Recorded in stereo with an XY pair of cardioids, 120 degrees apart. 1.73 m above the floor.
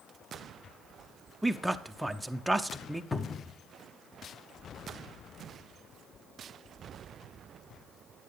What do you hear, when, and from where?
1.4 s a man speaking: 5° right, 0.8 m
3.1 s a cupboard door: 20° left, 1.1 m